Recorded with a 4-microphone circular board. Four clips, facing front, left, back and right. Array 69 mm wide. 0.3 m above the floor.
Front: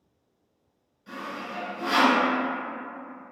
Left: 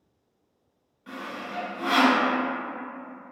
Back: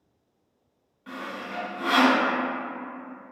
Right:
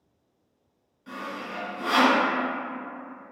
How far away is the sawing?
About 1.2 m.